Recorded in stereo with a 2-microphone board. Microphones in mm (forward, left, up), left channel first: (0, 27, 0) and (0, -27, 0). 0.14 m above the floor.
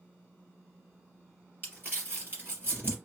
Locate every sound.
1.6 s crumpling: 40° right (ahead or behind), 1.8 m